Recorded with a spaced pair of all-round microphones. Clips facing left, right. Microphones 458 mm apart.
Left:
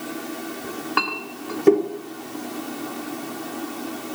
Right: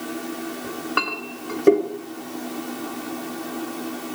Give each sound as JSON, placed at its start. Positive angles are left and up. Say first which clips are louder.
{"t": 0.6, "sound": "a clink", "louder": "even", "side_deg": 5, "distance_m": 2.0}